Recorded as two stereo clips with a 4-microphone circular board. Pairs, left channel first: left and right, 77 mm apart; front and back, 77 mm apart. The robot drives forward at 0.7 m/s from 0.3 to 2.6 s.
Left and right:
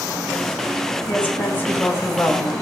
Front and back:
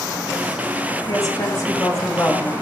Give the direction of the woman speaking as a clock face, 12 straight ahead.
11 o'clock.